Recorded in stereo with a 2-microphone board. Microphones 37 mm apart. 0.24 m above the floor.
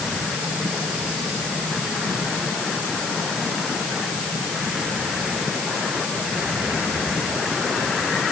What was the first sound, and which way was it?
Only background noise.